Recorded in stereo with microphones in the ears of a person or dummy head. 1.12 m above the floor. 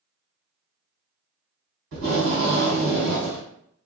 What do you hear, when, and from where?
1.9 s tape being pulled: 60° right (ahead or behind), 1.6 m